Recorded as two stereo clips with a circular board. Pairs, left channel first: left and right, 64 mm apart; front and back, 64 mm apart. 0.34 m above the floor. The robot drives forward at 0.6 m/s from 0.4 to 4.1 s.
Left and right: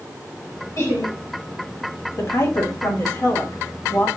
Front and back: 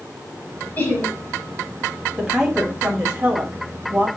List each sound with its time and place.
0.8 s laughter: 55° left, 3.5 m; by 1.1 s 60° left, 3 m
2.2 s a woman speaking: 100° left, 2.5 m; by 4.1 s 130° left, 3 m